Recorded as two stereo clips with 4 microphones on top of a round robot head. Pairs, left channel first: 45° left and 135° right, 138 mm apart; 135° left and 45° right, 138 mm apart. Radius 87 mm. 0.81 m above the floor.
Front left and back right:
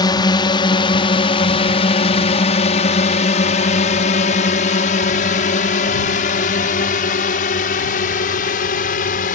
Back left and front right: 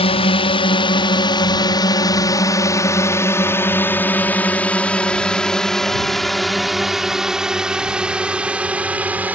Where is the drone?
100° left; by 9.3 s 35° left.